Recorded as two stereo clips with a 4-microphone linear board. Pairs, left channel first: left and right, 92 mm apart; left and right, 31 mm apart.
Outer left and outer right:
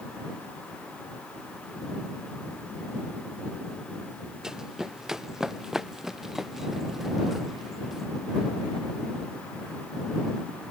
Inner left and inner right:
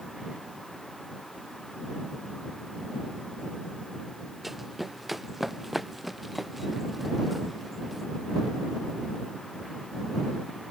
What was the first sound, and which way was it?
Running footsteps, 5° right (ahead or behind).